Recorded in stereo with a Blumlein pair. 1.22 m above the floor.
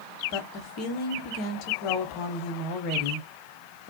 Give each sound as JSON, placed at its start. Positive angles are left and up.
{"t": 0.3, "sound": "a woman speaking", "azimuth_deg": 35, "distance_m": 0.9}